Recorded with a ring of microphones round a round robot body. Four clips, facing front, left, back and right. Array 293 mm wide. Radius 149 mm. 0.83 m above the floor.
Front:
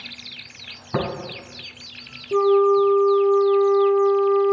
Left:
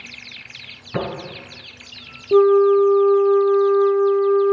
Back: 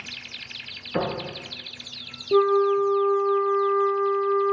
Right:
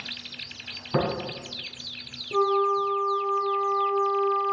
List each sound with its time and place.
0.9 s tapping: 20° right, 4.5 m
2.3 s a flute: 105° left, 0.9 m